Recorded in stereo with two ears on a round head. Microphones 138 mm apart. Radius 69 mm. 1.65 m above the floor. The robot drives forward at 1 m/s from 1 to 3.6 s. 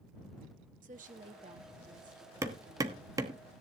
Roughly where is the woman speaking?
Right.